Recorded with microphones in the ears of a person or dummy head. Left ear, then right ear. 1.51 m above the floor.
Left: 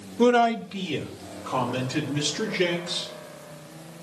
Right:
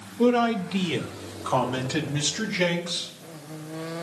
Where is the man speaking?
60° left (ahead or behind), 0.6 m; by 3.1 s 50° right (ahead or behind), 4 m.